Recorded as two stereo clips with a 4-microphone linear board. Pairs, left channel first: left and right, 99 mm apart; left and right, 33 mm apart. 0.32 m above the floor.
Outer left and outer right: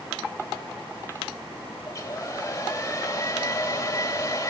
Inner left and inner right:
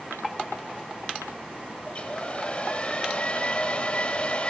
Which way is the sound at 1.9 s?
35° left (ahead or behind).